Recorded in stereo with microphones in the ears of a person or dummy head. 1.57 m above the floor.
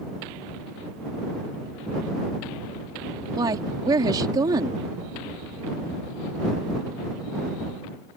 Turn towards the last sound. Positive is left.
turn(degrees=-25)  # may be behind; listen again after turning